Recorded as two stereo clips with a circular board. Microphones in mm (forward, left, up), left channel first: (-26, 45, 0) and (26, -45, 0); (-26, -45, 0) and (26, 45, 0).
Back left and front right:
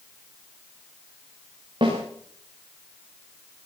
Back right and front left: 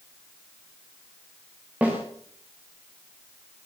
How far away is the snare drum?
About 9 m.